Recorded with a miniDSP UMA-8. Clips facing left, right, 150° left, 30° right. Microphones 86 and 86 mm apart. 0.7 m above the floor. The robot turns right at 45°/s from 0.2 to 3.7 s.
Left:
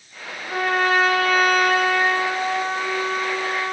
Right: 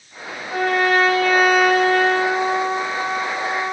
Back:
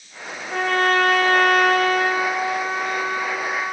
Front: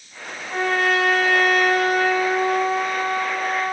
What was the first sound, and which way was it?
A trumpet, 140° left.